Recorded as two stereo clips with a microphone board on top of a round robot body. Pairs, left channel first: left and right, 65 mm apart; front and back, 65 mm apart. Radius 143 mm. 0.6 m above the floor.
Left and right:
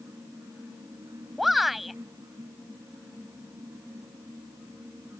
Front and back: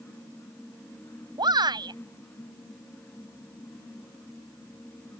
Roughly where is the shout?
Behind.